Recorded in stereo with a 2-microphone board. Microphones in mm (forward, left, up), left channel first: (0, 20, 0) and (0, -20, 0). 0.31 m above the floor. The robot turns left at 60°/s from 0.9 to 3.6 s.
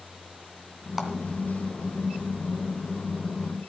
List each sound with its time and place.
1.0 s a clap: 5° right (ahead or behind), 2 m; by 1.1 s 15° right (ahead or behind), 2 m